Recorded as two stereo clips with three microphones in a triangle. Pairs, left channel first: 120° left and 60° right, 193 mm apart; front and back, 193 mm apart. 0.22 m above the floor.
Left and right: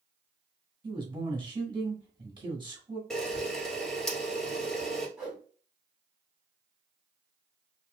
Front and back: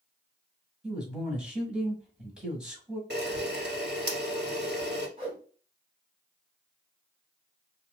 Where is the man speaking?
95° right, 1.7 m.